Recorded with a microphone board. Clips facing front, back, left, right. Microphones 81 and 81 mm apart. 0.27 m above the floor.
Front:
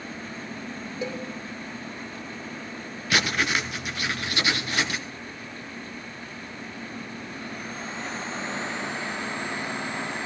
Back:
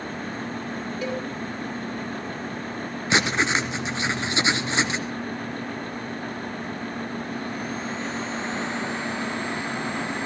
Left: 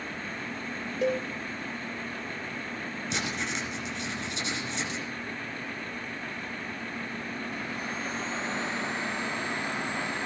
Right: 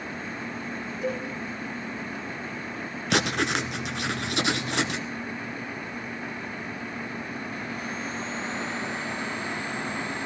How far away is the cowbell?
About 5 m.